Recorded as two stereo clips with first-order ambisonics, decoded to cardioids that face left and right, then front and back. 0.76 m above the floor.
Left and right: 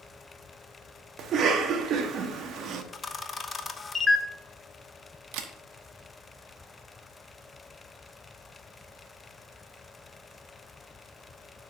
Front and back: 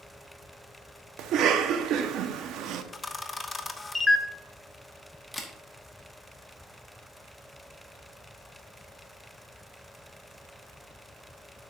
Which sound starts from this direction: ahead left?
A camera shutter, at 2.9 s.